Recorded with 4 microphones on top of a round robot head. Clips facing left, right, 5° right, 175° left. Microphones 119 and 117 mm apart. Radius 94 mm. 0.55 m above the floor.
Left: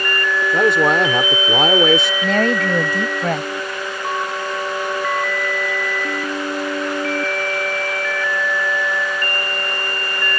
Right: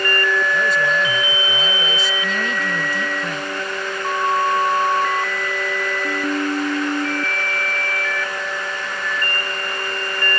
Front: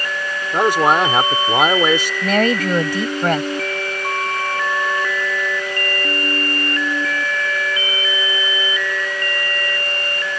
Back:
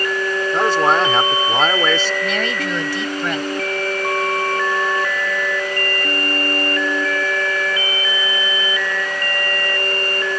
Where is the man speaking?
70° left.